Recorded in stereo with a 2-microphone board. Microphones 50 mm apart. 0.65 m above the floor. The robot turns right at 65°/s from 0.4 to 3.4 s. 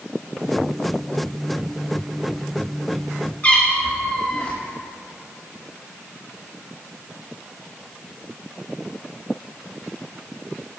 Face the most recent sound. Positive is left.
turn(degrees=35)  # may be behind; listen again after turning